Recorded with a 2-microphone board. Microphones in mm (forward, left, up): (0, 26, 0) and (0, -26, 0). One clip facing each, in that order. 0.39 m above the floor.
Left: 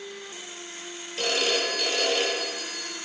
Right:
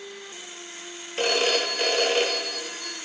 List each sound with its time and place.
1.2 s a phone ringing: 35° right (ahead or behind), 0.6 m